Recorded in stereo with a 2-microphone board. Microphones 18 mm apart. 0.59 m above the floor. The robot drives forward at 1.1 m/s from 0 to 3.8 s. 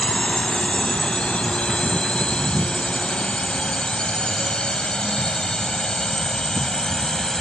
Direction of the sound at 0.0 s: 70° left (ahead or behind).